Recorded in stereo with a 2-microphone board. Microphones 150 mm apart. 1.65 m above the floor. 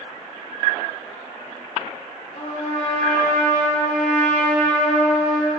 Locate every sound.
2.4 s a trumpet: 55° left (ahead or behind), 2.5 m